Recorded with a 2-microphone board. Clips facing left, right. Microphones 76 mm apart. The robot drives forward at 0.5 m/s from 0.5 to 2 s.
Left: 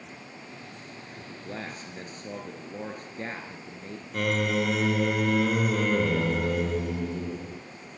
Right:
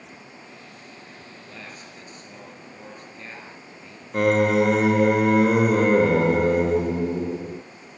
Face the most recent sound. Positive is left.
turn(degrees=-35)  # may be behind; listen again after turning